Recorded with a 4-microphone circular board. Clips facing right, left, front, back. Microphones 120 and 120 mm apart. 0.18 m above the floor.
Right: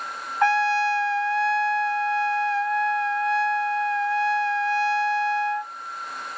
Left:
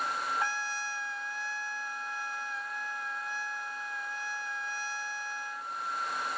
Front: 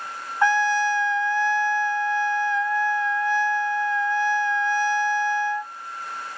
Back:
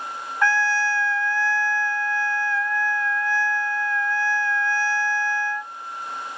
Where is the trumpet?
70° right.